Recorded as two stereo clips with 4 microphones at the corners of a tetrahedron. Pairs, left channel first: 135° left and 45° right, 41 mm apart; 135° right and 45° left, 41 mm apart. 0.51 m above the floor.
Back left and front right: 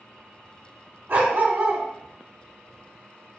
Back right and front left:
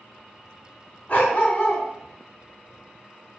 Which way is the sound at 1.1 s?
75° right.